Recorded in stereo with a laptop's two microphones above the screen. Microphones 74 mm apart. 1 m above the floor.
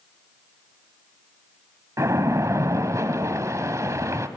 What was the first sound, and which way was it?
A splash, 45° right (ahead or behind).